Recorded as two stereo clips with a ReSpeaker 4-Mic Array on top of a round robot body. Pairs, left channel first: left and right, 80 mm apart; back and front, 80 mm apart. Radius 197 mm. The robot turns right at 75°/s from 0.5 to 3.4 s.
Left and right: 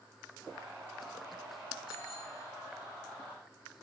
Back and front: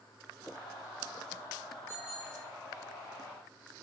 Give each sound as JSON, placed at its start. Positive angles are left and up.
{"t": 1.9, "sound": "a bicycle bell", "azimuth_deg": 60, "distance_m": 9.0}